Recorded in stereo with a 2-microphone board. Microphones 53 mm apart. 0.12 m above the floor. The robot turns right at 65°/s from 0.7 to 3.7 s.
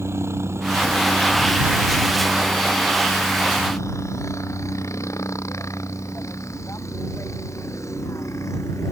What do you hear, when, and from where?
0.0 s a helicopter: 55° right (ahead or behind); by 8.9 s 75° left (ahead or behind)